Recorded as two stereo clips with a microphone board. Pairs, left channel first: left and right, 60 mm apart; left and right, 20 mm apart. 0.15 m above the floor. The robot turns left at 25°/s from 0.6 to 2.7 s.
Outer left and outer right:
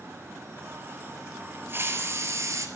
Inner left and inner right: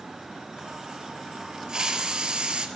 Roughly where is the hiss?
Right.